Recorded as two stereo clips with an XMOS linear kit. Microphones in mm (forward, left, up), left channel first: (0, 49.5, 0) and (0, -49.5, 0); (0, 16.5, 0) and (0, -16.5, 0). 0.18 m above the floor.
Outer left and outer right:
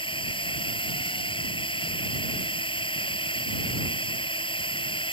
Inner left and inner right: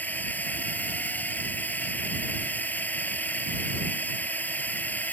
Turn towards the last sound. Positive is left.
turn(degrees=60)  # may be behind; listen again after turning